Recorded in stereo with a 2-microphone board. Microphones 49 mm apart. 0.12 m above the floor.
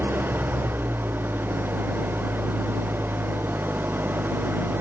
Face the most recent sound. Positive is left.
turn(degrees=-45)  # may be behind; listen again after turning